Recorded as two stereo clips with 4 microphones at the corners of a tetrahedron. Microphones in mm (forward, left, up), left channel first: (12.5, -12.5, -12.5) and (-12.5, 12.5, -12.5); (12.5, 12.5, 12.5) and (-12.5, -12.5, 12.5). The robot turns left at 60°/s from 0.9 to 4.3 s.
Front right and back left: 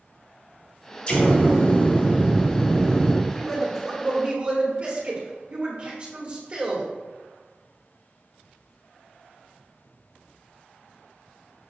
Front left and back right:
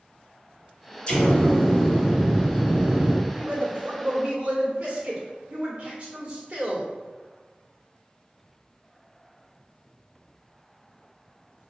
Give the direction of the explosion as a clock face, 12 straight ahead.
12 o'clock.